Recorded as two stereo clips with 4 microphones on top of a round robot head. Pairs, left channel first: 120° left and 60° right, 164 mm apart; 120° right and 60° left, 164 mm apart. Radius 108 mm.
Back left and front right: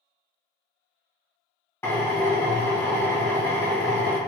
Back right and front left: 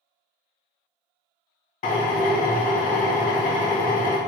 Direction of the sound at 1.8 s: 165° right.